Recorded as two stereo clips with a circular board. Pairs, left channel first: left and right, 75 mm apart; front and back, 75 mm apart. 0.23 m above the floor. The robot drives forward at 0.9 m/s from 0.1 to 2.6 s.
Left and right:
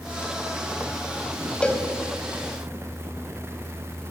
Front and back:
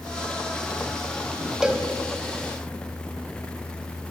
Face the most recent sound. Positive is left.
turn(degrees=170)